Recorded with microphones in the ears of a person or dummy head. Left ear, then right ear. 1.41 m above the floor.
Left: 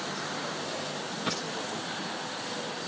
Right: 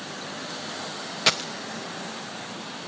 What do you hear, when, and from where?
1.3 s a dropped coin: 25° right (ahead or behind), 0.8 m